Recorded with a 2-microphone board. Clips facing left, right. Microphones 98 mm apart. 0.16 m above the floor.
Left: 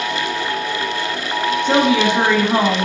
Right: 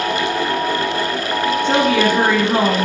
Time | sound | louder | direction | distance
1.6 | a woman speaking | left 1 dB | 20° left (ahead or behind) | 1.5 m